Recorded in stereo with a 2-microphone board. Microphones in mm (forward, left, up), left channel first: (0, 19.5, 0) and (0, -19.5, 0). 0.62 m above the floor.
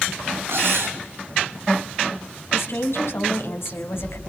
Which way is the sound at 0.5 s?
70° right (ahead or behind).